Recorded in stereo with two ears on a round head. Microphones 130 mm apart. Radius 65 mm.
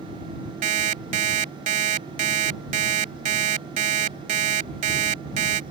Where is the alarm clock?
55° right (ahead or behind).